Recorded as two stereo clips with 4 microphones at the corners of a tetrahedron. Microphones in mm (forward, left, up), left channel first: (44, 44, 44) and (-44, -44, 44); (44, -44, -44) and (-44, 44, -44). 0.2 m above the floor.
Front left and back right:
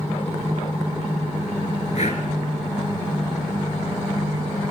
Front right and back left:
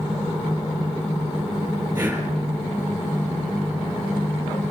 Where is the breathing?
65° left, 5.5 m.